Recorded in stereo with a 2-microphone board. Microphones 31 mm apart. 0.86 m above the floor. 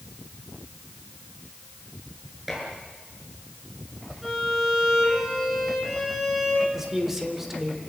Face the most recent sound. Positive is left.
turn(degrees=-10)  # may be behind; listen again after turning